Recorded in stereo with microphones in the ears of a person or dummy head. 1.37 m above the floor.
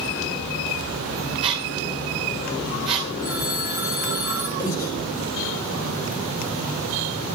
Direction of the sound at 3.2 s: 10° right (ahead or behind).